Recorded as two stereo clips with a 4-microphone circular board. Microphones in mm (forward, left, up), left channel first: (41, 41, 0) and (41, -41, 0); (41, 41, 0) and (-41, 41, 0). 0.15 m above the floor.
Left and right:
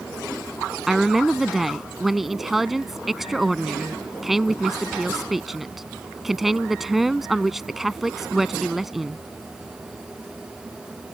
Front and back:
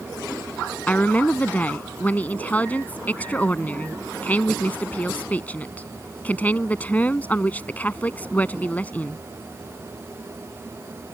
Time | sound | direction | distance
0.9 | a woman speaking | 10° right | ?